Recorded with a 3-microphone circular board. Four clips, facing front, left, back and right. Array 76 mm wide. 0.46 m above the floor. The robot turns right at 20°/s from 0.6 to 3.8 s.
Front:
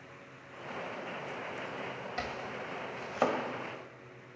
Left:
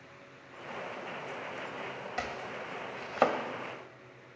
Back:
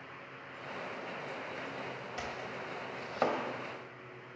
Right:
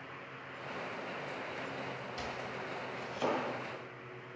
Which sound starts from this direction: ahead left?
Chopping, at 2.2 s.